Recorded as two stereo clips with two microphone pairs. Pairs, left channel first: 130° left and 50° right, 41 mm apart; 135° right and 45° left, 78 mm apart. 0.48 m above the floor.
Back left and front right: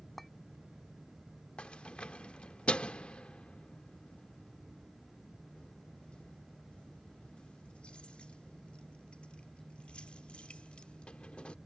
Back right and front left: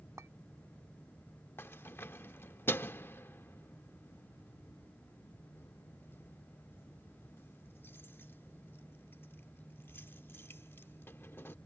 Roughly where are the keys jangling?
Behind.